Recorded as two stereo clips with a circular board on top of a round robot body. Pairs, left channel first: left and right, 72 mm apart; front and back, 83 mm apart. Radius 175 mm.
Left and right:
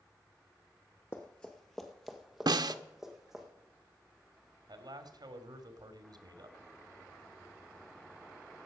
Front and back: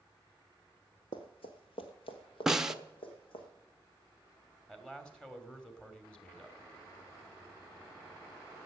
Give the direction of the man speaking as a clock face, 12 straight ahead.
3 o'clock.